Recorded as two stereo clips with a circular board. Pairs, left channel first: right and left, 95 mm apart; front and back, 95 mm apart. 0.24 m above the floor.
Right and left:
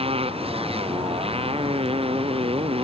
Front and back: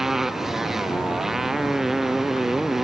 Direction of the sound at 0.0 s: 95° left.